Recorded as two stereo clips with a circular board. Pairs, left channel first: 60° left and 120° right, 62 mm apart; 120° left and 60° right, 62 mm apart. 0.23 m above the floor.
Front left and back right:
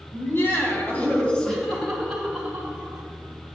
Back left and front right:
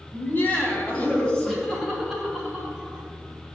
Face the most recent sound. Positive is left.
turn(degrees=-120)